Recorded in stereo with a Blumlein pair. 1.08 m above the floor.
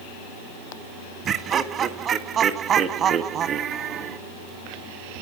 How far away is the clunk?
No clunk in this recording.